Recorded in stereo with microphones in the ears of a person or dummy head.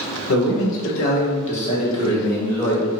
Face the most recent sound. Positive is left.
turn(degrees=5)  # may be behind; listen again after turning